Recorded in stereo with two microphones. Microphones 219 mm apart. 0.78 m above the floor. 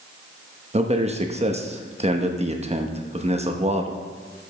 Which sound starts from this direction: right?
A man speaking, at 0.7 s.